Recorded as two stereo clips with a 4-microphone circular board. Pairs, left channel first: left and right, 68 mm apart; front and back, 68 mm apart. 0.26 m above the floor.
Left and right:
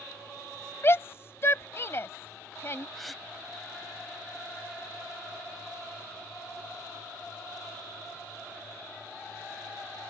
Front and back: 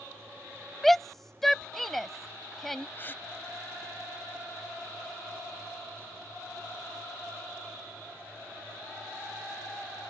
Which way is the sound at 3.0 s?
Straight ahead.